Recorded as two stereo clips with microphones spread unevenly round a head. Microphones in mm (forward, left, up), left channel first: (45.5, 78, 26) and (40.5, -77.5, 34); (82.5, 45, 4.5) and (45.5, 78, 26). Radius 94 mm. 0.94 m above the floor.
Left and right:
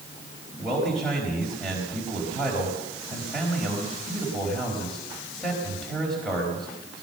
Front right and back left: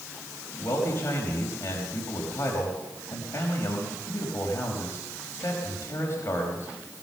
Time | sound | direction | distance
0.6 | a man speaking | straight ahead | 5 m